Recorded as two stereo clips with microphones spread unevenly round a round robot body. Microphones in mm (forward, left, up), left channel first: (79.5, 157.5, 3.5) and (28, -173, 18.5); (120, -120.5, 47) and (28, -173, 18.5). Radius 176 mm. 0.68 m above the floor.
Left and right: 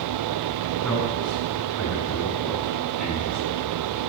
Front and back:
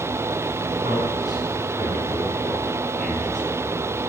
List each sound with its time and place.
0.8 s a man speaking: 170° left, 8 m